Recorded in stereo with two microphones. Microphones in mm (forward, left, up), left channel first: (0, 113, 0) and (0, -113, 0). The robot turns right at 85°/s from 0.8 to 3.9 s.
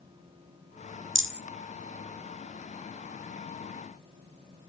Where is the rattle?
60° right (ahead or behind), 2.0 m; by 1.4 s 50° right (ahead or behind), 2.0 m.